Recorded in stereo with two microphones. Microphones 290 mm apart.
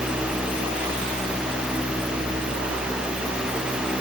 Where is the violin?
No violin in this recording.